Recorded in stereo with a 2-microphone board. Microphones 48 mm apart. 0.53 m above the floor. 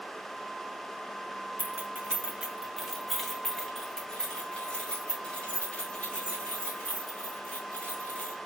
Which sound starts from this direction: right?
Keys jangling, at 1.6 s.